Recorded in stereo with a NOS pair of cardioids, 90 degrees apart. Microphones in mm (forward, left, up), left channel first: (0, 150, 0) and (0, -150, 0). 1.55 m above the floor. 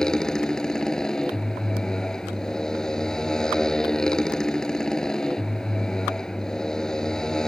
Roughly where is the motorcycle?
Ahead.